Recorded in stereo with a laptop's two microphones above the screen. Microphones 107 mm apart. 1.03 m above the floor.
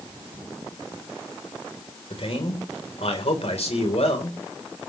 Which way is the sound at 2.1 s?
60° left (ahead or behind).